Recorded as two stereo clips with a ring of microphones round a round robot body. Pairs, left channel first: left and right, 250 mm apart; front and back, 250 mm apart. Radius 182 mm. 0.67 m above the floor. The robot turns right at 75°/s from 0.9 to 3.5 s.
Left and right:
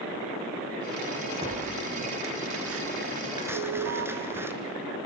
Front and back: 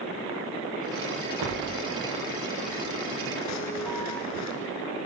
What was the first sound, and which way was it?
Tearing paper, 165° right.